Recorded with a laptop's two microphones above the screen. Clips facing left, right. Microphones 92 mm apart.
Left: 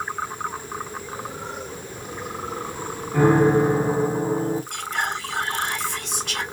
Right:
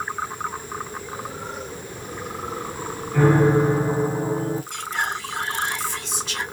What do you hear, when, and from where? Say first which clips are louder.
3.1 s a piano: left 1 dB; 20° left (ahead or behind), 0.8 m
4.7 s whispering: even; 55° left (ahead or behind), 1.5 m